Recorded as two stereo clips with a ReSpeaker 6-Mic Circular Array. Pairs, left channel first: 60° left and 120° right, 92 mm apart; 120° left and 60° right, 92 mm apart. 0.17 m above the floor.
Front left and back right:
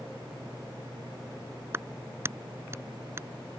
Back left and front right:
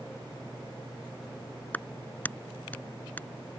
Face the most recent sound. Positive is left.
turn(degrees=-175)